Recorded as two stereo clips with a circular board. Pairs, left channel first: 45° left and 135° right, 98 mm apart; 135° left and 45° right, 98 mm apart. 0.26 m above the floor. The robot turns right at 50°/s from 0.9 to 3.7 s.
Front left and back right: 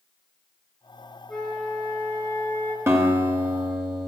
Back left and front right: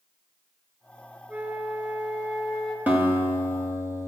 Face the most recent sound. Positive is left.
turn(degrees=-60)